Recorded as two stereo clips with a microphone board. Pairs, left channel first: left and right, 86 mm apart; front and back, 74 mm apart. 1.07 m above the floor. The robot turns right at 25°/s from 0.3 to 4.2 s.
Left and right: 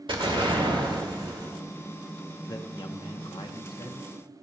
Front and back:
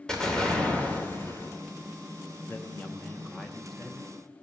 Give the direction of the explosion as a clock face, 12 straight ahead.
3 o'clock.